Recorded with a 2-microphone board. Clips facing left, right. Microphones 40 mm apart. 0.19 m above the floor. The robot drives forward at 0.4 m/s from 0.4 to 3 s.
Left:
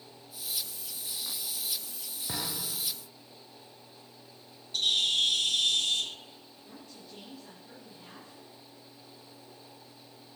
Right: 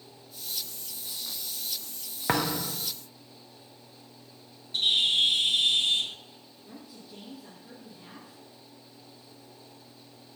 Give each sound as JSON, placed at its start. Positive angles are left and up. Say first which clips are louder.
{"t": 2.3, "sound": "a thud", "louder": "right 10 dB", "side_deg": -75, "distance_m": 1.1}
{"t": 4.7, "sound": "a bird", "louder": "right 3 dB", "side_deg": -25, "distance_m": 0.6}
{"t": 6.7, "sound": "a woman speaking", "louder": "right 3 dB", "side_deg": -15, "distance_m": 3.5}